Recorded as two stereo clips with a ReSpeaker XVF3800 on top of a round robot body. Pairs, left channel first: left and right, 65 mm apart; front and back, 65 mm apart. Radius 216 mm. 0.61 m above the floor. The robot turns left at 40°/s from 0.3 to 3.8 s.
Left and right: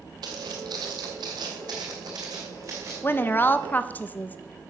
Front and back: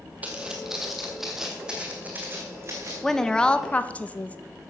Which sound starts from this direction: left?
A woman speaking, at 3.0 s.